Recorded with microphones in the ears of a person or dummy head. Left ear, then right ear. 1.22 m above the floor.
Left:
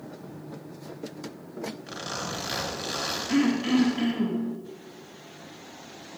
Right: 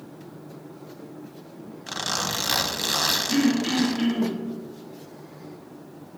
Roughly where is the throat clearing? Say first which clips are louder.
Right 2 dB; left.